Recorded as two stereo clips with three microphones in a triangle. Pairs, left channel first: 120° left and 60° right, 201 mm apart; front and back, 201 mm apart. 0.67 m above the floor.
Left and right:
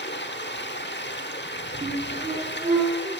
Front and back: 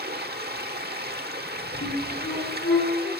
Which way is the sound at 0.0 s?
145° left.